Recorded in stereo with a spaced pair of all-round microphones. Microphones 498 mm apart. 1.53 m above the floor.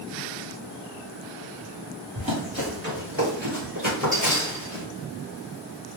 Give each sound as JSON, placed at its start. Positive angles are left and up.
{"t": 2.1, "sound": "running footsteps", "side_deg": -40, "distance_m": 1.9}